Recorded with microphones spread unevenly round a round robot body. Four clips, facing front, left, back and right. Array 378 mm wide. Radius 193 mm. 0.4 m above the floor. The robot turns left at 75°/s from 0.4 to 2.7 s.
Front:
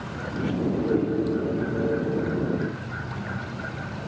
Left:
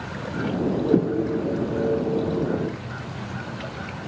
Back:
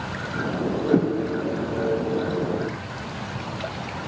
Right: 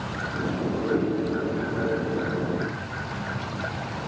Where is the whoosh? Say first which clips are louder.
Left 5 dB, back 6 dB; 145° left, 0.8 m; by 1.1 s 130° left, 0.8 m.